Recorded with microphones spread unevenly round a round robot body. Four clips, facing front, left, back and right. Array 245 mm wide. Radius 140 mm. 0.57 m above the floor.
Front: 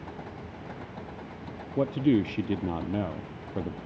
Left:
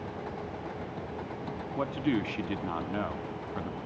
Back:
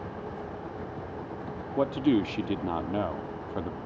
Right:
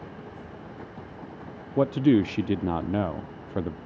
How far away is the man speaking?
About 0.7 m.